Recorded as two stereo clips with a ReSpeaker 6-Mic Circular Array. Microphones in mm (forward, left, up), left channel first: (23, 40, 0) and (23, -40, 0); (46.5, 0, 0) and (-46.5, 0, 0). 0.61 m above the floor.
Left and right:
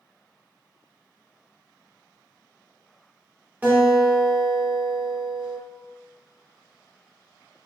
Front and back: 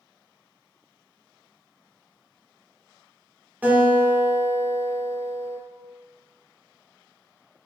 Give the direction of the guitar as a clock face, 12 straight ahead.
4 o'clock.